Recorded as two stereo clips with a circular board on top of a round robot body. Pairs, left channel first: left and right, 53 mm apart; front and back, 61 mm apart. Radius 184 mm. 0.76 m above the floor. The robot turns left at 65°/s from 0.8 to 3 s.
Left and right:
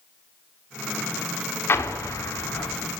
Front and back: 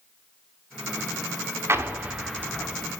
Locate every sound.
1.7 s an explosion: 135° left, 3 m; by 2.9 s 55° left, 3 m